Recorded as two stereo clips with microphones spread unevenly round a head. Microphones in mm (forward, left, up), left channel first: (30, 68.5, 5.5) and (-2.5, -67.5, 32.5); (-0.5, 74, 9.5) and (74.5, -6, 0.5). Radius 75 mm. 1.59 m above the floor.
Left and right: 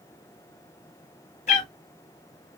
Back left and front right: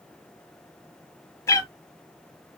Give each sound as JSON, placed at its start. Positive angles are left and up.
{"t": 1.5, "sound": "a cat meowing", "azimuth_deg": 100, "distance_m": 1.0}